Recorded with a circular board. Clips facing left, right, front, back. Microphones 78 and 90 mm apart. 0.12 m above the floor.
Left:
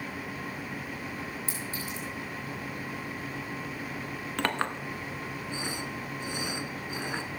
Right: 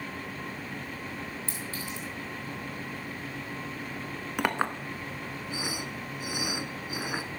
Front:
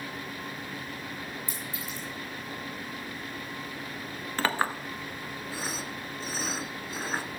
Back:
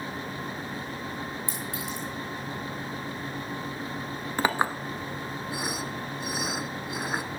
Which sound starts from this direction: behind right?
A clink, at 4.4 s.